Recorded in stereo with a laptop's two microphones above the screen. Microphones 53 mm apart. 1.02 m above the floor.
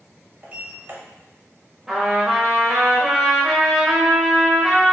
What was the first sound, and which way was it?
A sliding door, 30° right (ahead or behind).